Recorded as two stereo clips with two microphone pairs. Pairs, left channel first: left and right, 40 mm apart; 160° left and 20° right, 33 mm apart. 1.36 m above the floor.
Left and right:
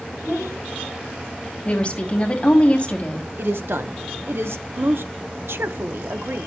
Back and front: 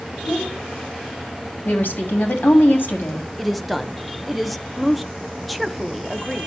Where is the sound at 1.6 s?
150° left, 2.5 m.